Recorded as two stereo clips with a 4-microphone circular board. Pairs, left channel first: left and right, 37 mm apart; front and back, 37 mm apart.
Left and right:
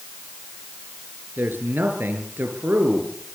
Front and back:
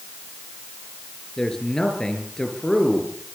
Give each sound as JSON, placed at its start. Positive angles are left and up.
{"t": 1.4, "sound": "a man speaking", "azimuth_deg": -75, "distance_m": 7.0}